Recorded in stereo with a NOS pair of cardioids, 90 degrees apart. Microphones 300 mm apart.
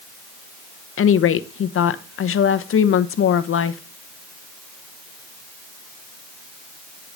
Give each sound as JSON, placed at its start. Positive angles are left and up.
{"t": 1.0, "sound": "a woman speaking", "azimuth_deg": 45, "distance_m": 0.9}